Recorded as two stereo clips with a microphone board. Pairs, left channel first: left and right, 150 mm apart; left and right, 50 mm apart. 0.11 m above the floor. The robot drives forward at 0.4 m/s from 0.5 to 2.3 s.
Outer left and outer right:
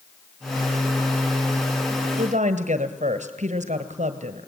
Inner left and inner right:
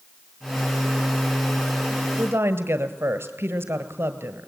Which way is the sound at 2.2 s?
50° right (ahead or behind).